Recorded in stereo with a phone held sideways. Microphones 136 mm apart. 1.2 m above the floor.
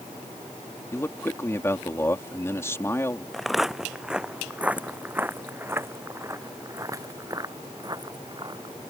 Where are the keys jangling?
I don't hear keys jangling.